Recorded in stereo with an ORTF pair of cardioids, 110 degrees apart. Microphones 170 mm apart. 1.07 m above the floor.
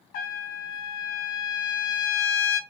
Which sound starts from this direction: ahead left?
A trumpet, at 0.1 s.